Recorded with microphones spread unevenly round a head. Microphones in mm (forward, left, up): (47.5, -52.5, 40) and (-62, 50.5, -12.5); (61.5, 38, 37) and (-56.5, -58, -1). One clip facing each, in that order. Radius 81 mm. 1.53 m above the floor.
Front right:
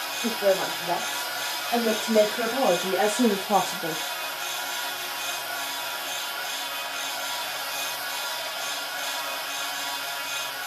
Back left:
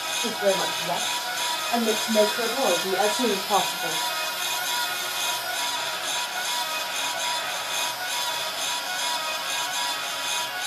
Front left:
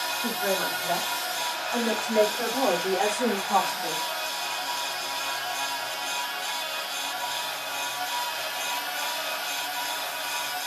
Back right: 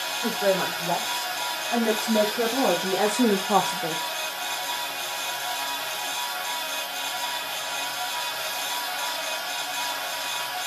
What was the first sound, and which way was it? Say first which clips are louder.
A woman speaking: front right 1 dB, back right 5 dB; 130° right.